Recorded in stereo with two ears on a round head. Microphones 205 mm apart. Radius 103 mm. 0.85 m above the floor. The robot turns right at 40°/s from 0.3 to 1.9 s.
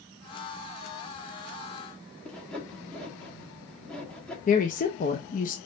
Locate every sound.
2.2 s sawing: 5° left (ahead or behind), 1.4 m
4.5 s a woman speaking: 35° left (ahead or behind), 0.8 m